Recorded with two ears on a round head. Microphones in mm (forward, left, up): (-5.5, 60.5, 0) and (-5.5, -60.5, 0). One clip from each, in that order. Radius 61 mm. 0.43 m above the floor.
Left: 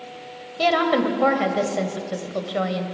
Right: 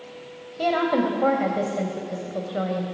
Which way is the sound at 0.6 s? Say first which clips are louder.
Left 3 dB; 55° left (ahead or behind).